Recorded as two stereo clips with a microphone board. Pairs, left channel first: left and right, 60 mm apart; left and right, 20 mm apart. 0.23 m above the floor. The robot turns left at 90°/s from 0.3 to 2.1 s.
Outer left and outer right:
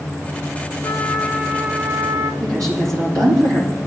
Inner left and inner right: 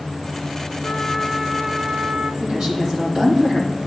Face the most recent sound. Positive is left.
turn(degrees=-70)  # may be behind; listen again after turning